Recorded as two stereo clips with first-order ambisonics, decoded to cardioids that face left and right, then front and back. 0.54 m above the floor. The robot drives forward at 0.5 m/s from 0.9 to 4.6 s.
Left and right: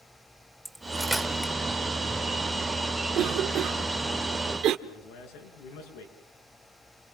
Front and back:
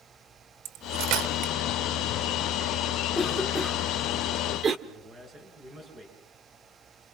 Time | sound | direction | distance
0.7 | cutlery clinking | straight behind | 1.1 m
3.1 | a cough | 80° right | 1.3 m
4.9 | a man speaking | 115° left | 7.5 m